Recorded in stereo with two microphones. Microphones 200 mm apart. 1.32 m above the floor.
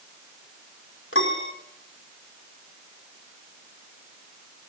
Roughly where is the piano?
Left.